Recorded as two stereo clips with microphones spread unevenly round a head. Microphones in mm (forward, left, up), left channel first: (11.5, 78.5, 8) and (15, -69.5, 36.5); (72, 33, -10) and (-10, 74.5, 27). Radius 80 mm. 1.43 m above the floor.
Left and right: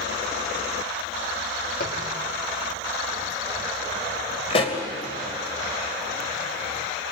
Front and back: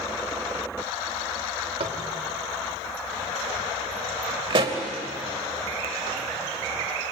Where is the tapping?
125° left, 3.5 m.